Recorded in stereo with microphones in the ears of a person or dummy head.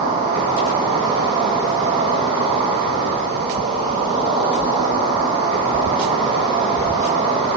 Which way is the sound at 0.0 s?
25° right (ahead or behind).